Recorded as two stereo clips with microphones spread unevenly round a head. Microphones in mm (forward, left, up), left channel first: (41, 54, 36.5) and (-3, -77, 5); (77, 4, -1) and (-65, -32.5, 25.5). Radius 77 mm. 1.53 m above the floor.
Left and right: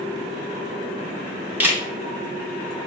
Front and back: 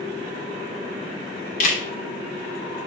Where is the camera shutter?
25° right, 0.8 m.